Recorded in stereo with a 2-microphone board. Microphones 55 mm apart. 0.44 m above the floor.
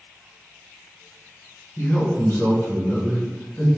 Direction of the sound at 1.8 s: 50° left (ahead or behind).